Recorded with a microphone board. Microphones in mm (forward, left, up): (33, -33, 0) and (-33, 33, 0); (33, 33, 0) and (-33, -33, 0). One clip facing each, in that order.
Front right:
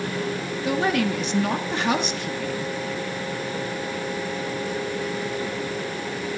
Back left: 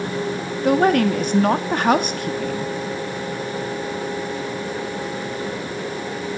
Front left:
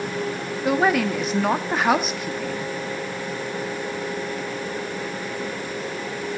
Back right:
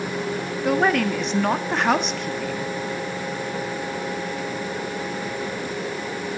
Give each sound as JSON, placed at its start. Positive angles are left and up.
{"t": 0.6, "sound": "a woman speaking", "azimuth_deg": 130, "distance_m": 0.7}